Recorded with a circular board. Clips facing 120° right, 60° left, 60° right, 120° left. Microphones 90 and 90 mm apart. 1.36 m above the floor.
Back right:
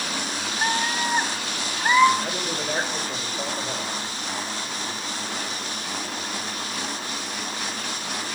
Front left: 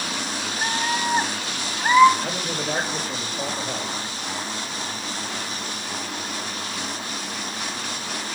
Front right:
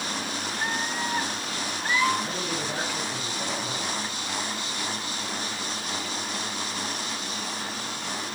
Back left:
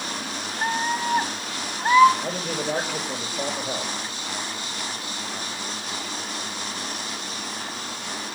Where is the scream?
165° left, 1.0 m; by 2.1 s 130° left, 1.4 m.